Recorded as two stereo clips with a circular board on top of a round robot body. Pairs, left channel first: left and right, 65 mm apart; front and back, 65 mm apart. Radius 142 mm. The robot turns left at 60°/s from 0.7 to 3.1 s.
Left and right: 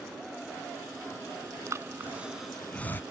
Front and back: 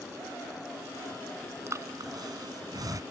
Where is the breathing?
130° right; by 3.0 s 145° left.